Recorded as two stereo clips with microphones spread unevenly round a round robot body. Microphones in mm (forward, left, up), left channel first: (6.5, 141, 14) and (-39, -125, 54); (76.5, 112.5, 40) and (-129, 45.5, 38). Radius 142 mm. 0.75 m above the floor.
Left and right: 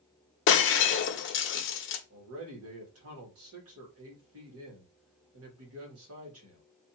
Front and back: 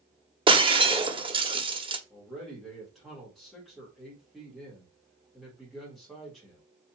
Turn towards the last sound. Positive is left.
turn(degrees=-70)